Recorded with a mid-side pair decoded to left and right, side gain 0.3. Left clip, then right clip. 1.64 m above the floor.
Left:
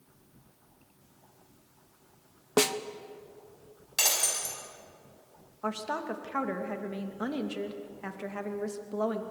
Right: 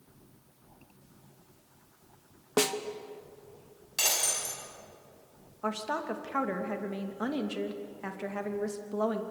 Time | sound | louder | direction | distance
2.6 | a snare drum | left 2 dB | 30° left | 1.3 m
4.0 | breaking glass | left 1 dB | 40° left | 6.5 m
5.6 | a woman speaking | right 1 dB | straight ahead | 2.5 m